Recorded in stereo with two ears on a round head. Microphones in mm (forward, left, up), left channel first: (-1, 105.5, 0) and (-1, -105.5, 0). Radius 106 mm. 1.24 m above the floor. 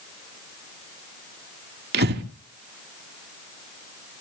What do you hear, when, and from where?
1.9 s breathing: 45° right (ahead or behind), 2 m